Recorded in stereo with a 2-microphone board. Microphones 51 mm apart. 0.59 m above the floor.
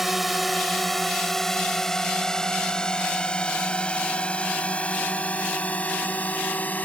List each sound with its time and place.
0.0 s a drone: 5° right (ahead or behind); by 6.9 s 35° left (ahead or behind)